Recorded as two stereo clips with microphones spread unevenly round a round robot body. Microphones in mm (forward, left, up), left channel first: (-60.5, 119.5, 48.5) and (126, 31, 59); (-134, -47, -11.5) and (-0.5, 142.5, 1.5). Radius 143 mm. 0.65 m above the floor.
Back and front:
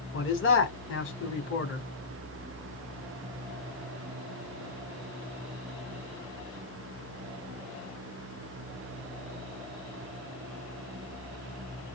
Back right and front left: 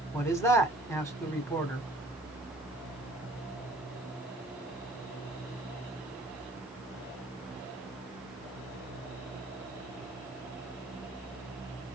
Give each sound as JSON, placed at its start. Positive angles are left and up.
{"t": 0.1, "sound": "a man speaking", "azimuth_deg": 160, "distance_m": 1.9}